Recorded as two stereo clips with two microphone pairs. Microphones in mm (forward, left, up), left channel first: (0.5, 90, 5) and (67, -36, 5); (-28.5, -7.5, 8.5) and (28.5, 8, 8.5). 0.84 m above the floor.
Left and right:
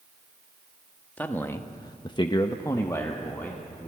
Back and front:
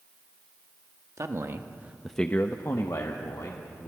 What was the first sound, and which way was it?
A man speaking, 40° left.